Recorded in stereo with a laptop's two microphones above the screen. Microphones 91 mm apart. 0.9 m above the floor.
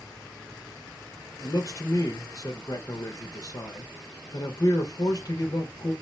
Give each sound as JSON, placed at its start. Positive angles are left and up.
{"t": 1.4, "sound": "a man speaking", "side_deg": 45, "distance_m": 0.6}